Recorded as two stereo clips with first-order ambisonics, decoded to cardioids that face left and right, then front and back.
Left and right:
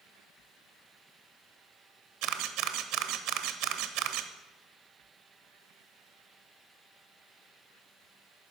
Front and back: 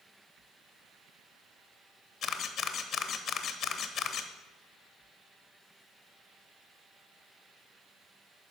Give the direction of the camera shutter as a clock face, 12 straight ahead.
2 o'clock.